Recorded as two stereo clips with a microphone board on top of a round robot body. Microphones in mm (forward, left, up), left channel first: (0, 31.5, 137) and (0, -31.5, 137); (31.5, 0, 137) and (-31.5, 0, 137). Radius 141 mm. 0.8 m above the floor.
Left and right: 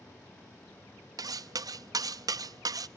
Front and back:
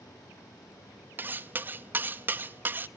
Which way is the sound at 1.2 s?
115° right.